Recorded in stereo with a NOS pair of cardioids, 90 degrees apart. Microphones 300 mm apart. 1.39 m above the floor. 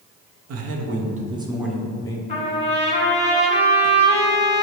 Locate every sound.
0.5 s a man speaking: 60° right, 0.8 m; by 2.2 s 15° left, 1.1 m
2.3 s a trumpet: 20° left, 1.2 m